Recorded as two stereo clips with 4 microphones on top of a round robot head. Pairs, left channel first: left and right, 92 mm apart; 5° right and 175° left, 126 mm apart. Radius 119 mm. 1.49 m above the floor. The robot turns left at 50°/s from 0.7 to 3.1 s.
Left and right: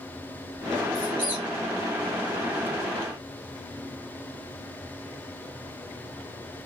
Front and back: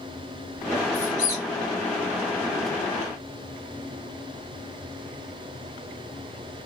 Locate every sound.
0.9 s a squeak: 20° left, 2.5 m; by 1.4 s 5° right, 2.5 m